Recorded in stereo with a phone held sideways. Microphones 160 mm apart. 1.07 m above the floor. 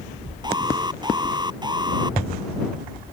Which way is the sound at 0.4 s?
25° right (ahead or behind).